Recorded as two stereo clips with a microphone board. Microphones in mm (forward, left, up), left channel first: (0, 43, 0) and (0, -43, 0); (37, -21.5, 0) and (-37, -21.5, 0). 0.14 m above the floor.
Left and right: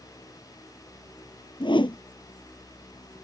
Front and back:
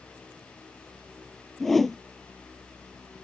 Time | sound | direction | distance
1.6 | a whoosh | 85° left | ?